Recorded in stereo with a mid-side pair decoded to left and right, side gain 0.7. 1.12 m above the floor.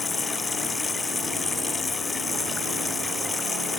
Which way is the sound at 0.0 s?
15° left.